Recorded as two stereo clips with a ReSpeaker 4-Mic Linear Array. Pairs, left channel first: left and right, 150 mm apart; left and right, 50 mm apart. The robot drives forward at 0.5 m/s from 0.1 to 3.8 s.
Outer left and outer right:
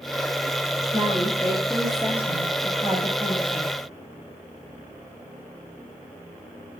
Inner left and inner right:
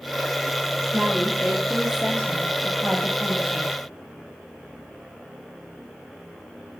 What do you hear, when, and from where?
0.9 s a woman speaking: 10° right (ahead or behind), 6.5 m